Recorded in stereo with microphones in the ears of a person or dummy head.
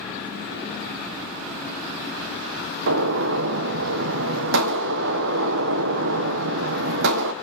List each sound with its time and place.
2.9 s a gunshot: 75° right (ahead or behind), 0.8 m